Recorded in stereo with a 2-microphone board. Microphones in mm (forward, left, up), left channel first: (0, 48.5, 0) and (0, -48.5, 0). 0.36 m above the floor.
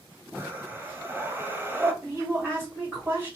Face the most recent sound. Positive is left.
turn(degrees=-20)  # may be behind; listen again after turning